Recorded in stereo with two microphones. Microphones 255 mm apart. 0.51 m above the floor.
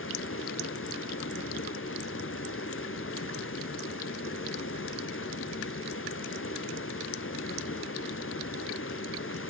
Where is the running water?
60° left (ahead or behind), 0.8 m.